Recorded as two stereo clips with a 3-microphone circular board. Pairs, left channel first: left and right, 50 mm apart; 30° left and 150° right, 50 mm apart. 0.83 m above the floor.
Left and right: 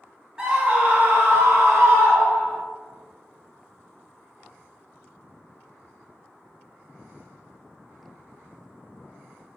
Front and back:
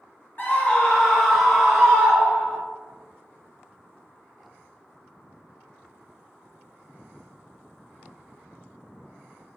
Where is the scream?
20° right, 0.9 m; by 2.6 s 85° right, 1.5 m.